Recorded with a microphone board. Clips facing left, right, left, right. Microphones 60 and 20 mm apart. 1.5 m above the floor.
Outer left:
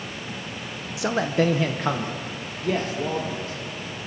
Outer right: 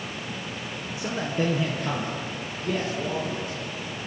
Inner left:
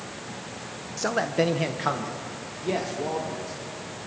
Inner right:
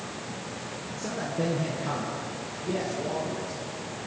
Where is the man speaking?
85° left, 0.9 m; by 3.6 s 60° left (ahead or behind), 2.5 m.